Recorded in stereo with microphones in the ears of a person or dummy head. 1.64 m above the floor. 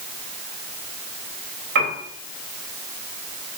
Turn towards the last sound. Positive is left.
turn(degrees=-60)  # may be behind; listen again after turning